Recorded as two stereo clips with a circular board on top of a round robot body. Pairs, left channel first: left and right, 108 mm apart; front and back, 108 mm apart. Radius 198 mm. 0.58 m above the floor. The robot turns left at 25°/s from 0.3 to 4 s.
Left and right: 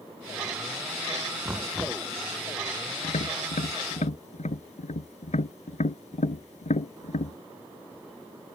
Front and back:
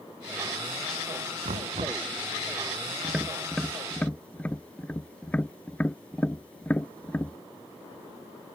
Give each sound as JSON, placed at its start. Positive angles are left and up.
{"t": 1.4, "sound": "knocking", "azimuth_deg": -165}
{"t": 3.0, "sound": "tapping", "azimuth_deg": 100}